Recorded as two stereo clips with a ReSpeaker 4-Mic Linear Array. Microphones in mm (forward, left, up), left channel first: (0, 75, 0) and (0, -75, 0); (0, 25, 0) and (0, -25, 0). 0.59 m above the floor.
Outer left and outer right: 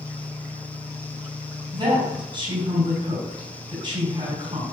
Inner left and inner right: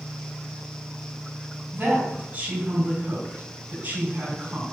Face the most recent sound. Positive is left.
turn(degrees=-35)  # may be behind; listen again after turning